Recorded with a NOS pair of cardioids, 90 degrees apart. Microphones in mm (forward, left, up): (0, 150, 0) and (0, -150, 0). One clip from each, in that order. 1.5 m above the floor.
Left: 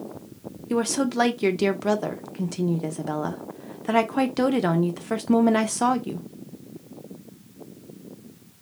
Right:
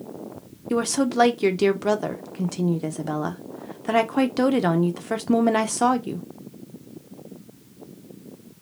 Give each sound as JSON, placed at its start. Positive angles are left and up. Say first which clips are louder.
{"t": 0.7, "sound": "a woman speaking", "louder": "right 1 dB", "azimuth_deg": -5, "distance_m": 0.7}